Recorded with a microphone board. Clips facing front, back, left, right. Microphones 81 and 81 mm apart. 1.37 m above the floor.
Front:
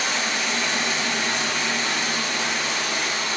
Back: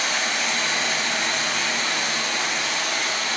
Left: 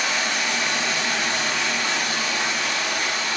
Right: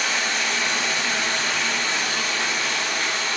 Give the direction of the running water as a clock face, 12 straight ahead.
7 o'clock.